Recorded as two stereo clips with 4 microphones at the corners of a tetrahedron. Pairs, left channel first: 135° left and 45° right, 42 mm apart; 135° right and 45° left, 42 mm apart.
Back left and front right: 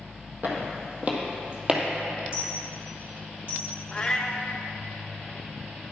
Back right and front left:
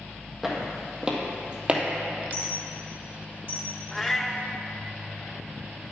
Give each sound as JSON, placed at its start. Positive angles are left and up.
{"t": 0.4, "sound": "footsteps", "azimuth_deg": -35, "distance_m": 2.0}
{"t": 2.3, "sound": "a dropped coin", "azimuth_deg": -105, "distance_m": 3.5}
{"t": 3.9, "sound": "a cat meowing", "azimuth_deg": 145, "distance_m": 0.8}